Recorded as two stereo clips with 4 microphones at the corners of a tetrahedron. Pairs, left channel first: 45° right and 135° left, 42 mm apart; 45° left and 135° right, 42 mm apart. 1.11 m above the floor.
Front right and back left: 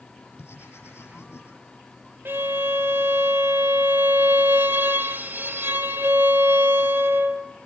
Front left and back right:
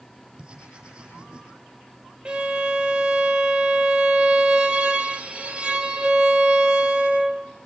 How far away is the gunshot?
I don't hear a gunshot.